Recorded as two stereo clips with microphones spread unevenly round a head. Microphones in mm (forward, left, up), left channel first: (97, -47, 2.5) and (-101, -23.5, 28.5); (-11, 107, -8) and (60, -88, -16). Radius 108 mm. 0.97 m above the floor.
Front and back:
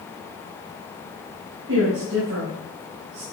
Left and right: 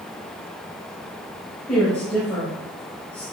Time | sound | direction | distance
1.7 | a woman speaking | 165° right | 5 m